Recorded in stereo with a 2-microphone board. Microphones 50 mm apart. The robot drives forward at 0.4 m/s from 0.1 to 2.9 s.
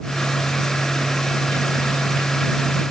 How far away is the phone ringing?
I don't hear a phone ringing.